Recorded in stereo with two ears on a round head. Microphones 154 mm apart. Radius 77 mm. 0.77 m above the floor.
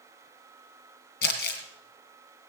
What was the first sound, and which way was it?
Crumpling, 65° left (ahead or behind).